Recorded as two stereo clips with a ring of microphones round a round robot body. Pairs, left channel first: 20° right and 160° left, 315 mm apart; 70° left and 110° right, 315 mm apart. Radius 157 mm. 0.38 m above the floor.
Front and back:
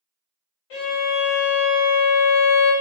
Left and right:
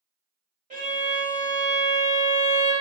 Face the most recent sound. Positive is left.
turn(degrees=-45)